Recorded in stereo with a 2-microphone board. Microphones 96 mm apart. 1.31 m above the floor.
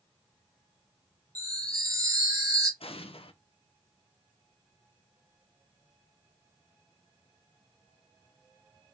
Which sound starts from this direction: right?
A chime, at 1.4 s.